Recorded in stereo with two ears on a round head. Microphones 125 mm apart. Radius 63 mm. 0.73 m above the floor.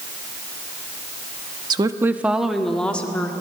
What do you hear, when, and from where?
1.7 s a woman speaking: 30° right (ahead or behind), 0.8 m; by 3.3 s 10° left (ahead or behind), 1.7 m